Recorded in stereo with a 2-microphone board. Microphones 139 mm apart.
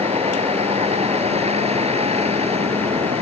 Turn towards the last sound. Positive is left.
turn(degrees=-50)  # may be behind; listen again after turning